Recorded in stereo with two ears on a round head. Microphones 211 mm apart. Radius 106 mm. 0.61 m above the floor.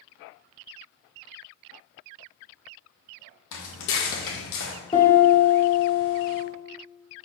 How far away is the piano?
About 1.7 m.